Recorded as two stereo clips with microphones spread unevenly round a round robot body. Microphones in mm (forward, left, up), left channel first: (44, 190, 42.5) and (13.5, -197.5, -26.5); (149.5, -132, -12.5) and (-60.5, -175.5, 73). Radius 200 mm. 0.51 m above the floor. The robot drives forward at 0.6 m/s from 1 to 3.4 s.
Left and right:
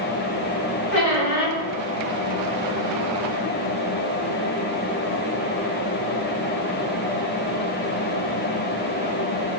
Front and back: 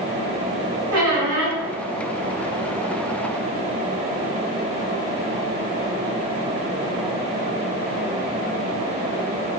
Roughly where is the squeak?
Behind left.